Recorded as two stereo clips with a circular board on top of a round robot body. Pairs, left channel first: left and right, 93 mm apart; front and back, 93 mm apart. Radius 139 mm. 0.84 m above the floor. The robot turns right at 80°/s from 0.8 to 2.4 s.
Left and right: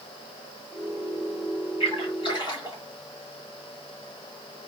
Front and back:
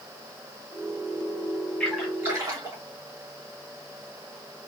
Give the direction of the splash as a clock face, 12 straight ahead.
9 o'clock.